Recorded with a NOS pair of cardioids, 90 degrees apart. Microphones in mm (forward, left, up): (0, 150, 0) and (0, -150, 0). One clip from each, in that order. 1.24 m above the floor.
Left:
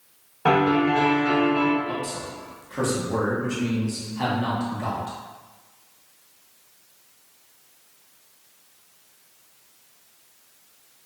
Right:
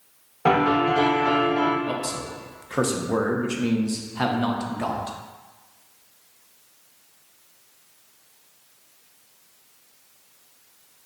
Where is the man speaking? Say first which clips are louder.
Right 1 dB; 40° right, 0.6 m.